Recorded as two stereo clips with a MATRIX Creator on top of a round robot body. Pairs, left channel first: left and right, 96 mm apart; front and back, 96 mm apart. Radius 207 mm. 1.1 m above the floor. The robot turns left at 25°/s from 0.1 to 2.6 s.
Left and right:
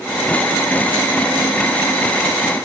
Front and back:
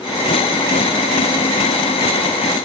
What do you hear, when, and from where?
Only background noise.